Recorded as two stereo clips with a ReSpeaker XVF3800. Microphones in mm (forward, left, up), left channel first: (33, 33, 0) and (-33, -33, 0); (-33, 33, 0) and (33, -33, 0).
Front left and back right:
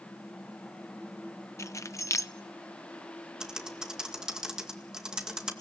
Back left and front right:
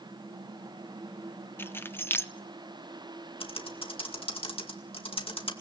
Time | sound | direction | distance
1.6 | keys jangling | 80° left | 0.6 m
3.4 | typing on a keyboard | 140° left | 2.0 m